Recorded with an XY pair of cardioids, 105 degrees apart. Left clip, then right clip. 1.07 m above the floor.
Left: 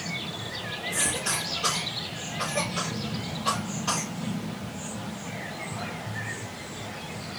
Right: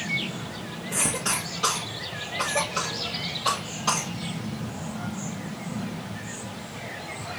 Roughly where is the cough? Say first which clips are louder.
Right 2 dB; ahead right.